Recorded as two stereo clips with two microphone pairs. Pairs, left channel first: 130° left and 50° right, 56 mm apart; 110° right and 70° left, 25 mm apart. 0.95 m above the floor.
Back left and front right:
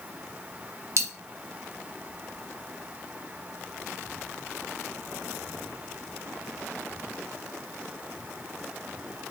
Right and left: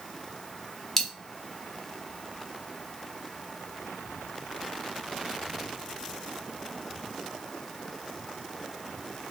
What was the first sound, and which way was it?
A dropped coin, 35° right.